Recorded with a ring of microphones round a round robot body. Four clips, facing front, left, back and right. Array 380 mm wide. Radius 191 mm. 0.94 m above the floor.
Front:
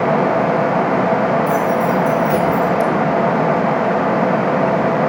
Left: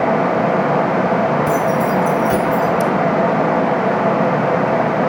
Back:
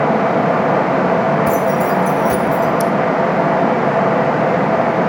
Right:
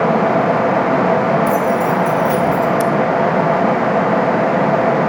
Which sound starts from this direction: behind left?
Keys jangling, at 1.5 s.